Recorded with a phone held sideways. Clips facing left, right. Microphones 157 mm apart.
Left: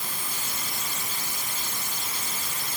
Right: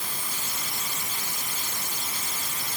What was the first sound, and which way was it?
Only background noise.